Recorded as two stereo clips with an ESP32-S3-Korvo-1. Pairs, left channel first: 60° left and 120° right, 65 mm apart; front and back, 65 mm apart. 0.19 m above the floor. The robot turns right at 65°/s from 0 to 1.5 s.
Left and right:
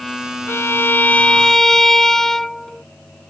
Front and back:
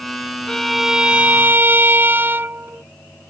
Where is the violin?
75° left; by 2.8 s 140° left.